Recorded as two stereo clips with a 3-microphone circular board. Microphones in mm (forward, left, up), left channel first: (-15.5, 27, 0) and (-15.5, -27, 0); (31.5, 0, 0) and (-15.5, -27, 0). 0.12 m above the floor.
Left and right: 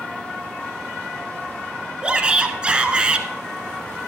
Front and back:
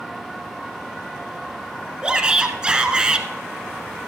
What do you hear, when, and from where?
2.0 s a shout: 115° right, 1.3 m